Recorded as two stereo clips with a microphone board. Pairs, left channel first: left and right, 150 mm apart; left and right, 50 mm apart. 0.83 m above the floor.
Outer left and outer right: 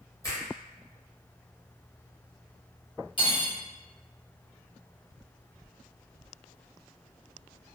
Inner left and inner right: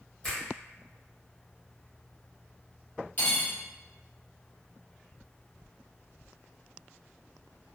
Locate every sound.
0.2 s a finger snap: 20° left (ahead or behind), 1.3 m
3.2 s cutlery clinking: 35° left (ahead or behind), 1.2 m